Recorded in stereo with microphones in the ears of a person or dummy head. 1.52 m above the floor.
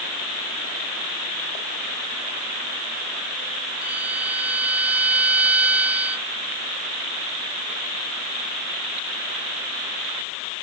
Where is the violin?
5° right (ahead or behind).